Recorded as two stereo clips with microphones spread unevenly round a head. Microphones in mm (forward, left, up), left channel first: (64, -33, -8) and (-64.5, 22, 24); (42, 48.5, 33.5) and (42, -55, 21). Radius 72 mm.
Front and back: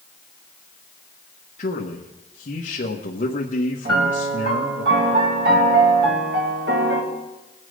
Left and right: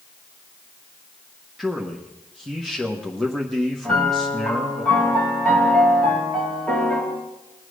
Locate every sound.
1.6 s a man speaking: 5° right, 1.3 m
3.9 s a piano: 175° left, 3 m